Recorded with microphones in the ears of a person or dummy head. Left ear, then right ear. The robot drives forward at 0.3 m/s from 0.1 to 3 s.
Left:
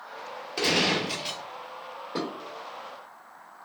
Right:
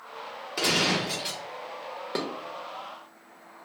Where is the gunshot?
Centre (ahead or behind), 1.0 m.